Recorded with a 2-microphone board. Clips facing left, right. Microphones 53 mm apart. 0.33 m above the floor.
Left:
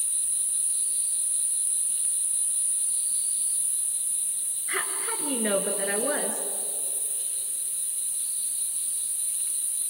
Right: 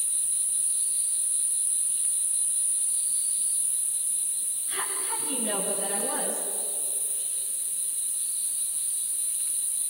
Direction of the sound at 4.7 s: 75° left (ahead or behind).